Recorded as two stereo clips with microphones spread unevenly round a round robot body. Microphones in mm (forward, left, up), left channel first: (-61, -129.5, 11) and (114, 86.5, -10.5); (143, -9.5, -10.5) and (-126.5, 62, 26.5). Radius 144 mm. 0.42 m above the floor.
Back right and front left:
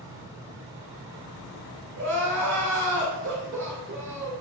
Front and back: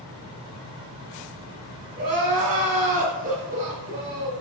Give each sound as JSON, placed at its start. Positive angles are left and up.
{"t": 2.0, "sound": "crying", "azimuth_deg": 100, "distance_m": 2.5}